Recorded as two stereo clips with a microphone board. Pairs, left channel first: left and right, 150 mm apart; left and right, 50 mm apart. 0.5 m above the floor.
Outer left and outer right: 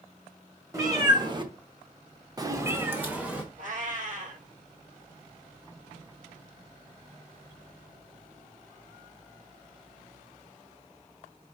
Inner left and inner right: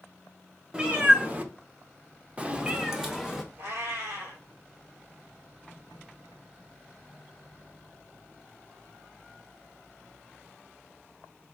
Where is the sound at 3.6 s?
60° right (ahead or behind), 2 m.